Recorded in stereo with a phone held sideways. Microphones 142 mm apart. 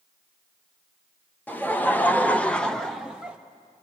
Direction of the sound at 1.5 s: 10° left (ahead or behind).